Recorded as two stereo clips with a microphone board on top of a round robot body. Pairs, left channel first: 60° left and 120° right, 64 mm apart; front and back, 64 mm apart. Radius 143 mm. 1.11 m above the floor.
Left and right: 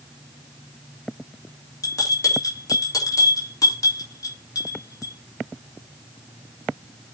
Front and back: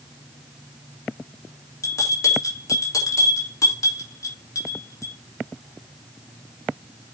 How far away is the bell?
About 3.5 m.